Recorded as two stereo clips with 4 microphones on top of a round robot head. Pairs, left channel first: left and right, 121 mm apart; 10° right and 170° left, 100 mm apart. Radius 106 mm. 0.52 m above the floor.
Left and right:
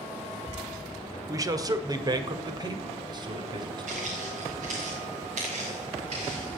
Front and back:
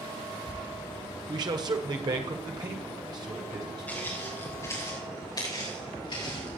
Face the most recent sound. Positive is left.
turn(degrees=-50)